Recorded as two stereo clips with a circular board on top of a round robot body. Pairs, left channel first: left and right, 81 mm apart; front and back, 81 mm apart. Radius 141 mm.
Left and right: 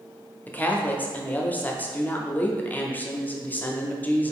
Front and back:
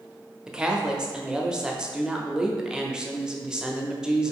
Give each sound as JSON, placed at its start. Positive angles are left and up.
{"t": 0.5, "sound": "a woman speaking", "azimuth_deg": 110, "distance_m": 0.8}